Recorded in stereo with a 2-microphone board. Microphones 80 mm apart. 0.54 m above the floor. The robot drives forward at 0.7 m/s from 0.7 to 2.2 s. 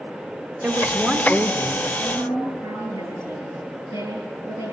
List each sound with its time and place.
0.6 s a woman speaking: 15° right (ahead or behind), 1.3 m; by 1.9 s 10° right (ahead or behind), 1.9 m
2.0 s a woman speaking: 45° right (ahead or behind), 9 m